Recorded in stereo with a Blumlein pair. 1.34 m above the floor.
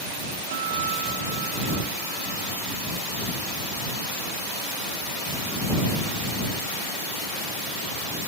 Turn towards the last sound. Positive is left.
turn(degrees=-55)